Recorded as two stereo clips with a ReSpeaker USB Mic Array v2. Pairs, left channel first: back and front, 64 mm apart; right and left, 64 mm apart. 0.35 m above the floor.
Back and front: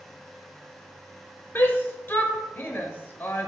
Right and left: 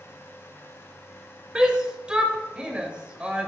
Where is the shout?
155° left, 1.3 m.